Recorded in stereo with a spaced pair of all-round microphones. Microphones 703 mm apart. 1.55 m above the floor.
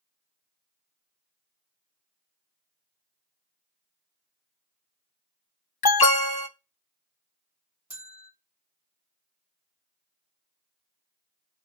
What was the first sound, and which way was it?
An alarm, 35° left (ahead or behind).